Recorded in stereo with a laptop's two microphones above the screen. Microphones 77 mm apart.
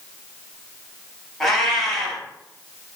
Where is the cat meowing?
5° left (ahead or behind), 1.0 m.